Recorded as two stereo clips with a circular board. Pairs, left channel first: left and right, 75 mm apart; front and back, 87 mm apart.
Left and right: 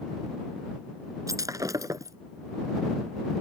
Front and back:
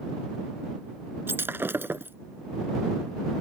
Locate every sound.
1.3 s breaking glass: 120° right